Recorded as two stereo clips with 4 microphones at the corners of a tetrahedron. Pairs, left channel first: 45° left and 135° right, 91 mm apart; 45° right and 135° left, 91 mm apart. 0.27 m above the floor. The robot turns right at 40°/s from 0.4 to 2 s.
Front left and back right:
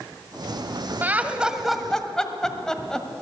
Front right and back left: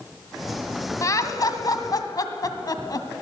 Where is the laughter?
75° right, 1.5 m; by 3.1 s 35° right, 1.5 m.